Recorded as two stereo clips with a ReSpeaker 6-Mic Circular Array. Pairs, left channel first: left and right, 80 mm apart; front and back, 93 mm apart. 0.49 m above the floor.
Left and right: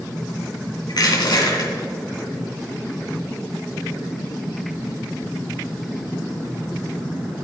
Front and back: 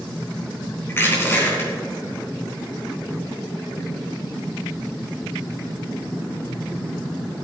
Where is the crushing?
65° left, 3.5 m.